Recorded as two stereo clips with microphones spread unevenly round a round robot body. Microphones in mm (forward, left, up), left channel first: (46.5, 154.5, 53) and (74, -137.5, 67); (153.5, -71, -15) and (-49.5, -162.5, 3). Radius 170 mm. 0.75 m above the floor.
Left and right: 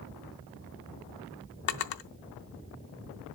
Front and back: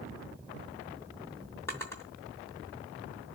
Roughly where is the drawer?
Left.